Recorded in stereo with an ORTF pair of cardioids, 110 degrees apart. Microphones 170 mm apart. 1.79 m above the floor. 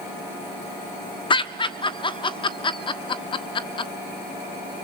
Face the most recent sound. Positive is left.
turn(degrees=30)